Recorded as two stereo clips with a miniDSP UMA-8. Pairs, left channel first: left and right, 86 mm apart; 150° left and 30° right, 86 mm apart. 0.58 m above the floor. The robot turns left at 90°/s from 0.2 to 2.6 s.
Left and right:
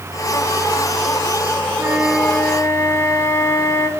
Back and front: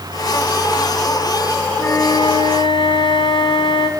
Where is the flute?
145° right, 2.0 m; by 3.9 s 145° left, 2.0 m.